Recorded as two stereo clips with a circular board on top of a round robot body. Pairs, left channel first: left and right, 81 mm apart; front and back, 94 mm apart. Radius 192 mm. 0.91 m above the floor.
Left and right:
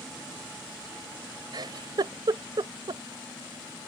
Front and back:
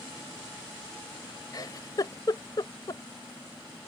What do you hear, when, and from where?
1.5 s a giggle: 55° right